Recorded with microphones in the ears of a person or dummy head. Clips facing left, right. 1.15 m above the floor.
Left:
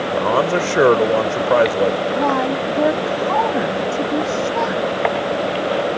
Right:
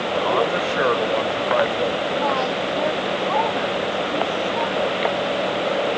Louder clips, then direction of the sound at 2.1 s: Left 4 dB; 55° left (ahead or behind).